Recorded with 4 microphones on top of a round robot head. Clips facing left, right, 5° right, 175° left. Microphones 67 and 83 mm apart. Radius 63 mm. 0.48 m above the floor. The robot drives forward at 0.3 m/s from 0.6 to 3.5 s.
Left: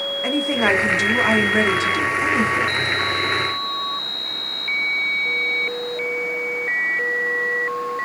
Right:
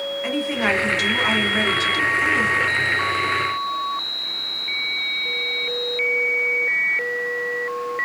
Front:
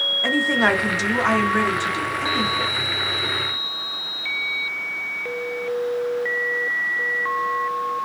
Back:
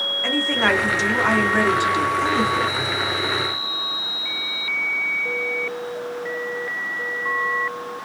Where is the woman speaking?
60° left, 0.7 m; by 2.8 s 150° left, 0.8 m.